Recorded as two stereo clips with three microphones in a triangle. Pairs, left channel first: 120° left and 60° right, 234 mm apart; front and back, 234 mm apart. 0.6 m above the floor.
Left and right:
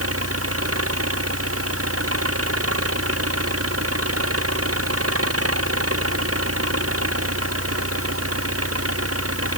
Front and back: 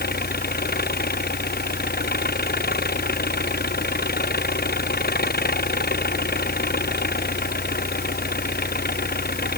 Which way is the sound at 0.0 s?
50° right.